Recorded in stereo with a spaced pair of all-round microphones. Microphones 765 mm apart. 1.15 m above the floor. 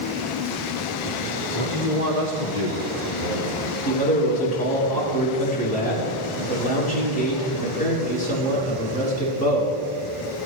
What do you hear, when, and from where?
1.6 s a man speaking: 35° left (ahead or behind), 1.1 m; by 3.8 s 40° left (ahead or behind), 2.5 m
3.9 s a man speaking: 10° left (ahead or behind), 4.5 m